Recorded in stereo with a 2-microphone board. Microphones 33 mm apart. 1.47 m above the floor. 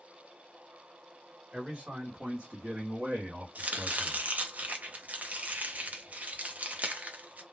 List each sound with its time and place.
1.5 s a man speaking: 35° right (ahead or behind), 1.4 m; by 4.2 s 60° right (ahead or behind), 0.7 m
3.5 s chopping: 55° right (ahead or behind), 0.6 m